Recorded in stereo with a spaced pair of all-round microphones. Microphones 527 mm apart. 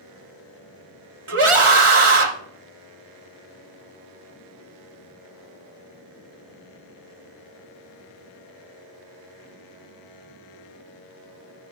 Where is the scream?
75° right (ahead or behind), 0.9 m.